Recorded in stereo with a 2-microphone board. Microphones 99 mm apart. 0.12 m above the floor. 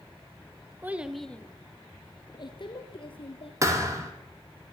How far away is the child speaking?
About 1.0 m.